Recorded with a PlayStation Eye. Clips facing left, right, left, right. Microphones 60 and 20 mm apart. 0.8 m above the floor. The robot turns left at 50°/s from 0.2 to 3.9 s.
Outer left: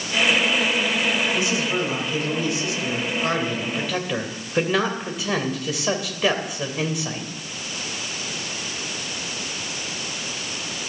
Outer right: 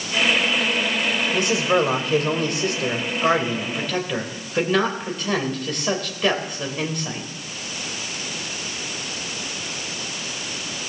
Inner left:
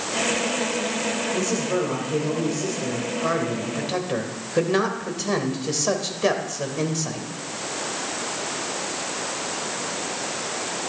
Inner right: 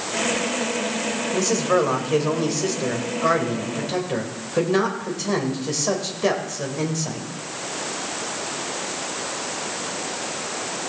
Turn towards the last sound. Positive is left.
turn(degrees=175)